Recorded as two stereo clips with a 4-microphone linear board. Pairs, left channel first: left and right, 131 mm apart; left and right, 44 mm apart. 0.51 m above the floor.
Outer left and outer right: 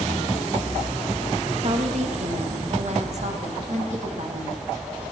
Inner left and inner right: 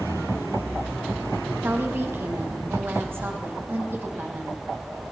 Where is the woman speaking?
65° right (ahead or behind), 4.5 m.